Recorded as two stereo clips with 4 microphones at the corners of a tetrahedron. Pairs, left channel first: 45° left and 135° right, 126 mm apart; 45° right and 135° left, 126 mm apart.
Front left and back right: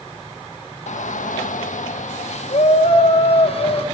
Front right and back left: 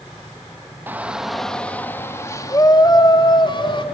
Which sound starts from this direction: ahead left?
A shout, at 0.9 s.